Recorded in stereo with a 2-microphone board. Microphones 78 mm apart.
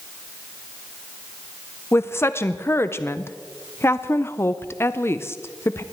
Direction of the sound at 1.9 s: 35° left (ahead or behind).